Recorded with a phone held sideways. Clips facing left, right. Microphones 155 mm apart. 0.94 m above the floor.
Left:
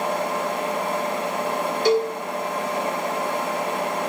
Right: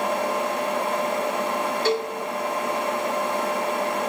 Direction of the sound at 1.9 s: 15° left (ahead or behind).